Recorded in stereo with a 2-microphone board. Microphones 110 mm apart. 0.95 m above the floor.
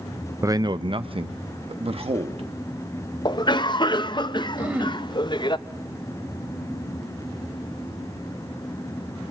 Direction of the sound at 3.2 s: 40° left (ahead or behind).